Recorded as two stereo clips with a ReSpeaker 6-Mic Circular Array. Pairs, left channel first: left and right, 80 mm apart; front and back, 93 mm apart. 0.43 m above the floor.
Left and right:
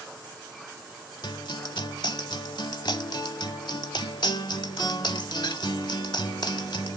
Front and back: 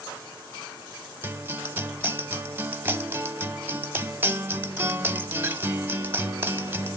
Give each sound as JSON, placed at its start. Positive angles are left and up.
{"t": 1.2, "sound": "a guitar", "azimuth_deg": 115, "distance_m": 0.6}